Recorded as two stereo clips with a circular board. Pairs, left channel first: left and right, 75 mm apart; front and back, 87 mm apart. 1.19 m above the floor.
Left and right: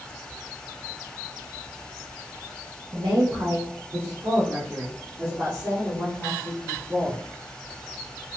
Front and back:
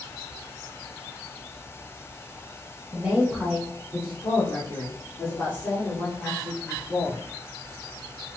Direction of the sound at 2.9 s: 110° right.